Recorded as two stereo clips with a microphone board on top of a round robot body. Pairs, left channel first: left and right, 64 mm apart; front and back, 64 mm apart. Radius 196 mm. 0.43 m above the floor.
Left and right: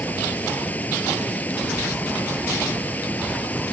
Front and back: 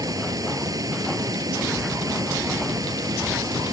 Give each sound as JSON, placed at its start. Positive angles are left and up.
{"t": 0.0, "sound": "running water", "azimuth_deg": 155}